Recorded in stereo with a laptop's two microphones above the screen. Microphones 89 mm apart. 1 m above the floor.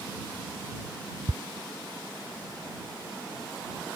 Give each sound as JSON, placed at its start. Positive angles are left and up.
{"t": 1.3, "sound": "ticking", "side_deg": -65}